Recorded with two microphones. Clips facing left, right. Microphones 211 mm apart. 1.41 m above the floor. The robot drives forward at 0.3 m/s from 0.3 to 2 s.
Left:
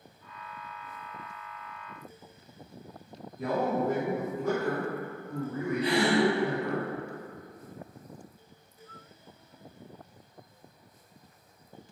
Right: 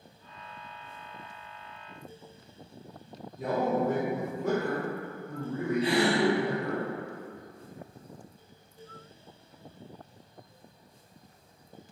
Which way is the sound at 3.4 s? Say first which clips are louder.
Right 1 dB; 25° right (ahead or behind).